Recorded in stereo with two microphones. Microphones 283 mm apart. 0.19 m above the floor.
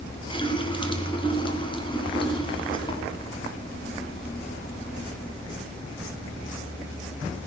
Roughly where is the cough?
I don't hear a cough.